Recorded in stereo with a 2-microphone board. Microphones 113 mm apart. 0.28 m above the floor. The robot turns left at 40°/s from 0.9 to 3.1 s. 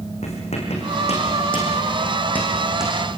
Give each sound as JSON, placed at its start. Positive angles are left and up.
{"t": 0.2, "sound": "writing", "side_deg": 75, "distance_m": 6.0}